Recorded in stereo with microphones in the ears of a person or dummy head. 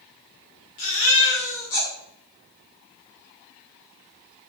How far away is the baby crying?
About 1.6 m.